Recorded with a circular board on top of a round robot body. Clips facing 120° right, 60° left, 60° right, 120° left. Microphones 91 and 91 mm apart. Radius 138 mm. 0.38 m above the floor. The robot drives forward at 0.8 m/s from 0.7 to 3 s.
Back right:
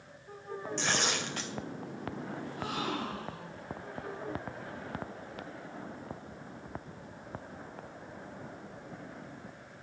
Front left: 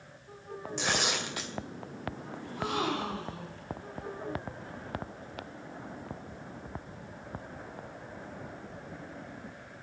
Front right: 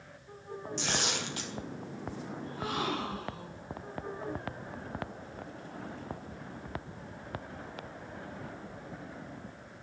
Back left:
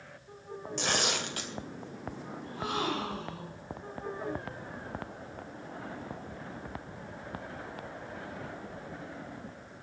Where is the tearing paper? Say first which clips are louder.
Front left 1 dB, back left 3 dB; 135° left, 2.5 m; by 1.5 s 145° left, 3 m.